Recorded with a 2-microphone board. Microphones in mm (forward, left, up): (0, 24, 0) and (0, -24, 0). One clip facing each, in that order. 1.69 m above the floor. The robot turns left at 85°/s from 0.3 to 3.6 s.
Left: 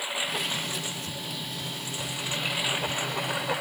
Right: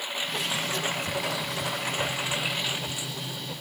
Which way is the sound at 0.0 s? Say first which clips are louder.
Left 1 dB; 5° left (ahead or behind).